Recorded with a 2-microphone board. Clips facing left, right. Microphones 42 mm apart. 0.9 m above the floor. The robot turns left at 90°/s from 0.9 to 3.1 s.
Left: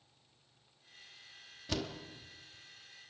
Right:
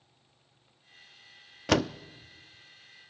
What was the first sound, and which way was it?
A door slam, 85° right.